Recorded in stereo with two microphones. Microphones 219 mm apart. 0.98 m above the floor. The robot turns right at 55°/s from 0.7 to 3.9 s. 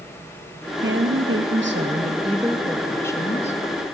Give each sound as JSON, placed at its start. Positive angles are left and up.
{"t": 0.8, "sound": "a woman speaking", "azimuth_deg": -110, "distance_m": 0.8}